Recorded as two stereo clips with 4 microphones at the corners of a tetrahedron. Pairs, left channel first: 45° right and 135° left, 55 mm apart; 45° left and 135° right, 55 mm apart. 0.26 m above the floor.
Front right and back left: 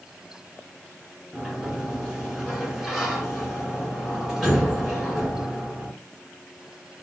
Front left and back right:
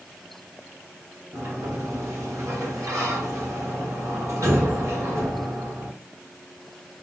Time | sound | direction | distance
1.3 | a sliding door | 140° right | 1.1 m